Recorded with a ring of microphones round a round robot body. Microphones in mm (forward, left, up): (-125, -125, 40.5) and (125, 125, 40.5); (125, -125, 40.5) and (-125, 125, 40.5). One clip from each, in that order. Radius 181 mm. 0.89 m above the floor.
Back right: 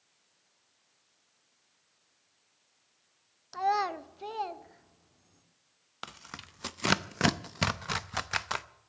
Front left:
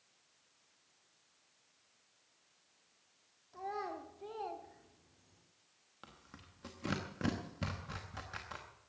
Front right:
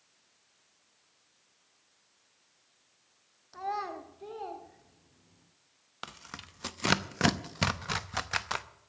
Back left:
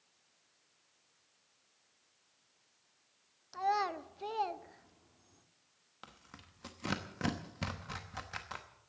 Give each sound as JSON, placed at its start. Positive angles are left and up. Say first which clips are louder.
{"t": 3.5, "sound": "a child speaking", "louder": "back right 13 dB, back left 2 dB", "azimuth_deg": -150, "distance_m": 0.9}
{"t": 6.0, "sound": "tearing paper", "louder": "back right 14 dB, front right 11 dB", "azimuth_deg": -105, "distance_m": 0.7}